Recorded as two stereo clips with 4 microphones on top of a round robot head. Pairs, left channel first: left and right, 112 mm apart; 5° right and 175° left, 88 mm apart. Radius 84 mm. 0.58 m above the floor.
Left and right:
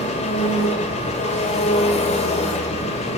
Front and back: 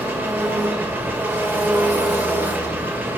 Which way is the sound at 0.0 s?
110° left.